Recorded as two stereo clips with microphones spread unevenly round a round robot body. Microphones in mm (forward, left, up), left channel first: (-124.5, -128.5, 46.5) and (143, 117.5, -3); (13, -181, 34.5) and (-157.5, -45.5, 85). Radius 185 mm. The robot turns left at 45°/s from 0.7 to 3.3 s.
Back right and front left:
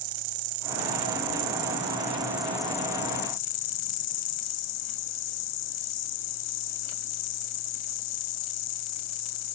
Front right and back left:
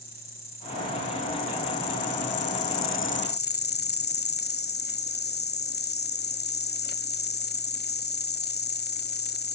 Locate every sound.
0.0 s an insect: 30° left, 0.7 m; by 9.6 s 85° right, 0.7 m